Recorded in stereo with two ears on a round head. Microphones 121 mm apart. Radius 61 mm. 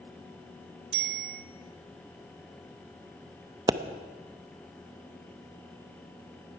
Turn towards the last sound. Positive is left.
turn(degrees=-25)  # may be behind; listen again after turning